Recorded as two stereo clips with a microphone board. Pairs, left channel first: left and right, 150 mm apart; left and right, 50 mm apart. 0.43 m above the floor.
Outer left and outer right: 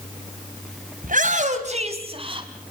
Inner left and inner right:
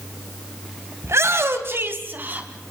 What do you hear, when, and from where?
1.0 s a shout: 60° right (ahead or behind), 2.5 m; by 2.5 s 35° right (ahead or behind), 3.5 m